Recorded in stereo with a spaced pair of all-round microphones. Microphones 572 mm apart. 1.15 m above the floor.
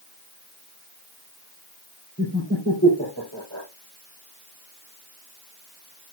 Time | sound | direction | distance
2.2 | laughter | 30° left (ahead or behind) | 4 m